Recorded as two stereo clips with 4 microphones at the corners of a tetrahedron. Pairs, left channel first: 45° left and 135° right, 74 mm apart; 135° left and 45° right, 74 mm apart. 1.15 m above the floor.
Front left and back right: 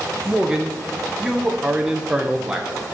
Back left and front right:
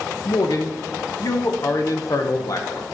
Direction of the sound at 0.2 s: 145° left.